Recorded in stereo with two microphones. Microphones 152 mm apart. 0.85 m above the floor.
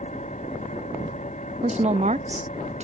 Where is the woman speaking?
45° right (ahead or behind).